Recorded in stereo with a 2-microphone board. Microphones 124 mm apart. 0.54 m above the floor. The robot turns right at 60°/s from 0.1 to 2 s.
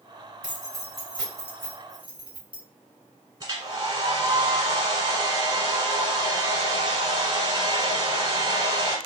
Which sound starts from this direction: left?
Keys jangling, at 0.4 s.